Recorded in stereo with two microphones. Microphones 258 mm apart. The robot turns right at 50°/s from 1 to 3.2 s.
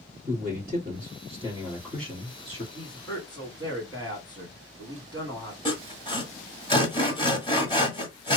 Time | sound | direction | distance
0.3 | a man speaking | 50° right | 2 m
2.7 | a man speaking | centre (ahead or behind) | 2.0 m
5.7 | sawing | 20° left (ahead or behind) | 1.1 m